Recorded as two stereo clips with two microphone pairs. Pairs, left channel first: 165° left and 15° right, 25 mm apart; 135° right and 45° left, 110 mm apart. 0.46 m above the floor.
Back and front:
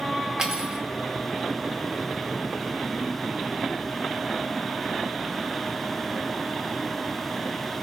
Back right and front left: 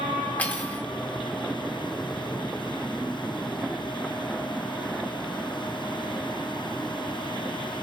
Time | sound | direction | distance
0.4 | cutlery clinking | 65° right | 0.5 m